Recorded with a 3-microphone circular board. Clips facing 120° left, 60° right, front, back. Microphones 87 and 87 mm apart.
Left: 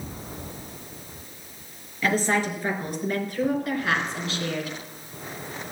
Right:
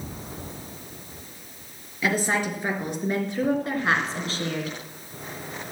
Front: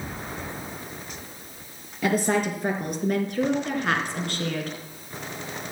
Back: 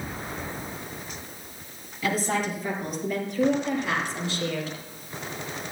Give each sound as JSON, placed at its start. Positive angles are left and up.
{"t": 2.0, "sound": "a woman speaking", "azimuth_deg": 15, "distance_m": 4.0}